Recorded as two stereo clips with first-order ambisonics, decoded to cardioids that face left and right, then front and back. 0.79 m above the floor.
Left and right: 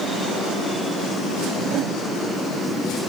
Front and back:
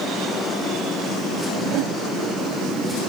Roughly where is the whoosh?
Behind right.